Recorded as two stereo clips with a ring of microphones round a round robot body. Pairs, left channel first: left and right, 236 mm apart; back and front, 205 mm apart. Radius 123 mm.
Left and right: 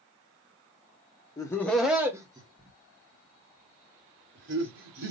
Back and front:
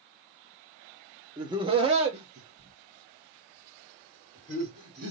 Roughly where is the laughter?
Ahead left.